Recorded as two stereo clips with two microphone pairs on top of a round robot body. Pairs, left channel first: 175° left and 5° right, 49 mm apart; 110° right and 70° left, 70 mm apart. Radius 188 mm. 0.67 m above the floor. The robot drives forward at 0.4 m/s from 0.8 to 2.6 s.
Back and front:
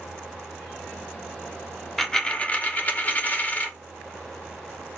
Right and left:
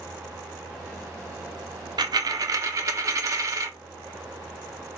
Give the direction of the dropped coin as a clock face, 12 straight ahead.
9 o'clock.